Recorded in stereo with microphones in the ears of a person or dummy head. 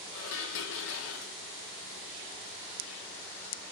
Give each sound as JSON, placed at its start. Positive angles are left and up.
{"t": 0.1, "sound": "dishes clattering", "side_deg": 70, "distance_m": 0.6}